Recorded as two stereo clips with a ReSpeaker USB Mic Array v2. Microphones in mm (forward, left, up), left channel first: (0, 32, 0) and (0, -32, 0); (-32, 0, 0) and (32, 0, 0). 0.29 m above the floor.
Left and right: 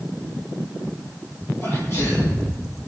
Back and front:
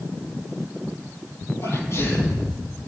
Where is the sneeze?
135° left, 6.5 m.